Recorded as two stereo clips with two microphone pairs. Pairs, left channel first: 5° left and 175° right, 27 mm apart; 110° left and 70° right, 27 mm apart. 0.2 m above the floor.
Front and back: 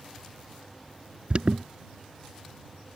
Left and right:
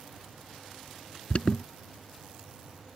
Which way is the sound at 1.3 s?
150° left.